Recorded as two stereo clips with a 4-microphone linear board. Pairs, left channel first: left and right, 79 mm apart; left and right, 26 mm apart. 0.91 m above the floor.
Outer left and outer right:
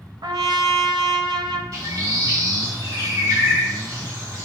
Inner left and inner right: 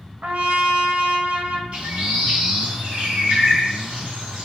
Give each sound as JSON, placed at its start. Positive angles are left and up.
{"t": 0.2, "sound": "a trumpet", "side_deg": -60, "distance_m": 0.6}
{"t": 1.7, "sound": "a bird", "side_deg": -40, "distance_m": 1.7}